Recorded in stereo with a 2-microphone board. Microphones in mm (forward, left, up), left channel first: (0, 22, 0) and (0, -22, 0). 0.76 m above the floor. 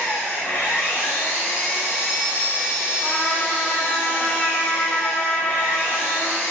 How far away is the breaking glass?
No breaking glass in this recording.